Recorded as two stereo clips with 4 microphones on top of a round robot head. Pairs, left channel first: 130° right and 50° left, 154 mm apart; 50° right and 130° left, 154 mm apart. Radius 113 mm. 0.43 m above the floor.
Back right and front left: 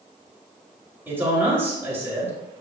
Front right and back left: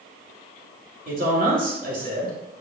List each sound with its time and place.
1.1 s a man speaking: 125° left, 2.5 m